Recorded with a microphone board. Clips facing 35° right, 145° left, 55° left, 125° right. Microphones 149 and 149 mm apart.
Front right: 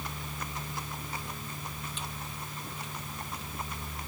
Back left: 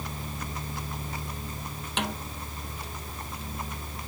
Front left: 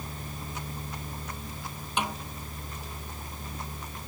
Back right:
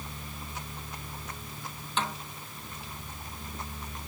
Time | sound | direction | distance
2.0 | a snare drum | 130° left | ?